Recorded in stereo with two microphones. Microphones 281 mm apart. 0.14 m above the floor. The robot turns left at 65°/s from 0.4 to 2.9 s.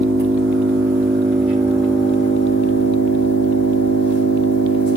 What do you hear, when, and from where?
0.0 s an engine running: 90° right, 4.5 m; by 5.0 s 110° left, 4.5 m